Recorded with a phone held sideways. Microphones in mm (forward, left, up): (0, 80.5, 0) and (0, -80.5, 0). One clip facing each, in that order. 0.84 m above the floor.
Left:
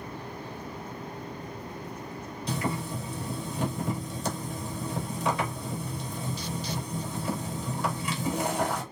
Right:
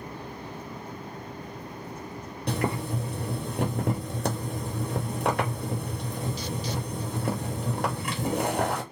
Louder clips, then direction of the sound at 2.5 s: Right 3 dB; 60° right (ahead or behind).